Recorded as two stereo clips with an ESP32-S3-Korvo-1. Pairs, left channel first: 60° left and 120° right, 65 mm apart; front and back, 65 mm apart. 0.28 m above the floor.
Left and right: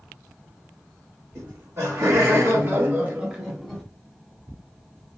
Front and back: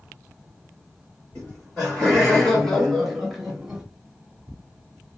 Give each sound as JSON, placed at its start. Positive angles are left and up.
{"t": 1.4, "sound": "laughter", "azimuth_deg": -75, "distance_m": 2.0}